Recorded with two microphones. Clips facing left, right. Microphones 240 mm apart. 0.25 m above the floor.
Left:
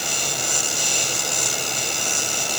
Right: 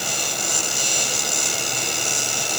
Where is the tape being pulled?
I don't hear tape being pulled.